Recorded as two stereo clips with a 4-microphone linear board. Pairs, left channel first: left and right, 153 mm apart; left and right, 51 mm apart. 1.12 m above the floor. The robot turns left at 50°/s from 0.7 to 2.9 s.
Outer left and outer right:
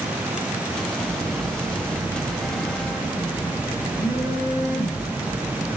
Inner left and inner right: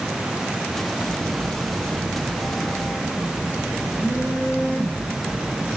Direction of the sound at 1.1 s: 110° right.